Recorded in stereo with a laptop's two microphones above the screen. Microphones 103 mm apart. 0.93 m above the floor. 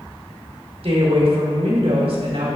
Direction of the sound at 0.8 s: 65° right (ahead or behind).